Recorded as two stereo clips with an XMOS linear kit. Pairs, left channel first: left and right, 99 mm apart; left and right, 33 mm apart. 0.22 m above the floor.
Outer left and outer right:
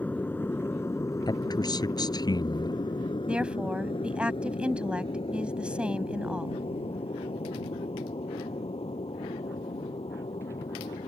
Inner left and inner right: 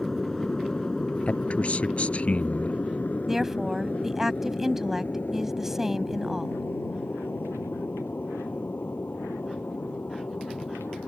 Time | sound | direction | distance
0.0 | an aircraft | 15° left (ahead or behind) | ?
1.3 | a man speaking | 40° left (ahead or behind) | ?
3.3 | a woman speaking | 10° right (ahead or behind) | ?